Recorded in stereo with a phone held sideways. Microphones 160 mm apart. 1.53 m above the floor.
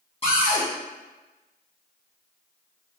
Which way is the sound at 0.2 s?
35° left (ahead or behind).